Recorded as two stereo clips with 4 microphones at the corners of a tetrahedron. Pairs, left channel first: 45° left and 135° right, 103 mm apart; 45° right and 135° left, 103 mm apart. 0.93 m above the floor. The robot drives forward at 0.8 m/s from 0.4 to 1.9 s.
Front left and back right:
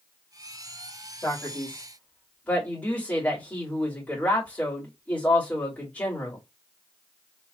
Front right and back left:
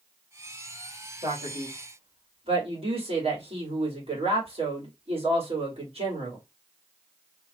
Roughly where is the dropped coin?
No dropped coin in this recording.